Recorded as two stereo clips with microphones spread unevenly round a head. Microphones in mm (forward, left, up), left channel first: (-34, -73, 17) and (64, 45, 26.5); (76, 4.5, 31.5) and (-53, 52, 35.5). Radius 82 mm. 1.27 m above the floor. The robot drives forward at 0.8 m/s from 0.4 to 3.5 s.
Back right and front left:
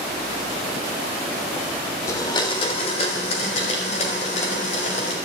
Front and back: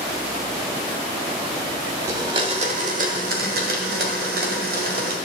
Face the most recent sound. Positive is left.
turn(degrees=180)